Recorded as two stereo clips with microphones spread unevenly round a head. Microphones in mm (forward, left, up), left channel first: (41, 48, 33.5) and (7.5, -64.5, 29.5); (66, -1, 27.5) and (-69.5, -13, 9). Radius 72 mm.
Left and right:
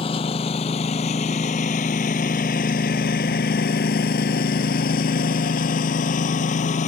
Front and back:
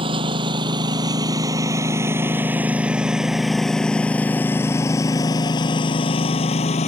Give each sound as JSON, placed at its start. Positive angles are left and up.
{"t": 0.0, "sound": "a lawn mower", "azimuth_deg": 125}